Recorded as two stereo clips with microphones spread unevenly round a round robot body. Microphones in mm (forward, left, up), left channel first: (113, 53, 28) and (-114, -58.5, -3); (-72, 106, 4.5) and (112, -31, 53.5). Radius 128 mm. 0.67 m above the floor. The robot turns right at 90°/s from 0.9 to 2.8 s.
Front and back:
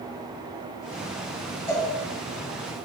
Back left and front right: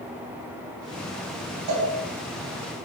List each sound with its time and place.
1.7 s a cowbell: 55° right, 3.5 m; by 1.9 s 35° right, 3.5 m